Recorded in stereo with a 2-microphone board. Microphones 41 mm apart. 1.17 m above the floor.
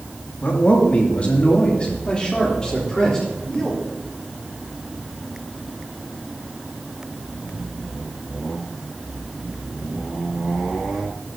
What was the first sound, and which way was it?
A man speaking, 45° left (ahead or behind).